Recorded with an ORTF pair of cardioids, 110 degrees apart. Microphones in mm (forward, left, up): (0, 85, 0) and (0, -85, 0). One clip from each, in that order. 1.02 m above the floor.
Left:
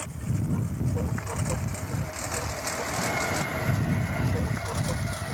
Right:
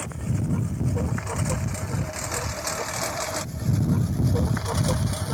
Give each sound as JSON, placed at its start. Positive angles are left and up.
{"t": 0.0, "sound": "a lawn mower", "azimuth_deg": -15}